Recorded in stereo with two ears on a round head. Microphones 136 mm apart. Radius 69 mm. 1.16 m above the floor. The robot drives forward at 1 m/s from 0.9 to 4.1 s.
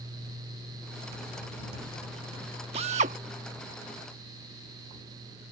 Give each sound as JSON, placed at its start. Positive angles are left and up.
{"t": 2.7, "sound": "a drill", "side_deg": -40}